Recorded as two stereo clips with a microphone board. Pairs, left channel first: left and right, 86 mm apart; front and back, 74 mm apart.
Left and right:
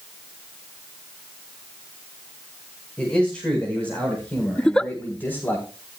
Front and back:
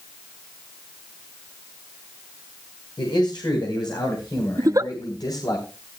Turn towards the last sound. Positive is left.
turn(degrees=170)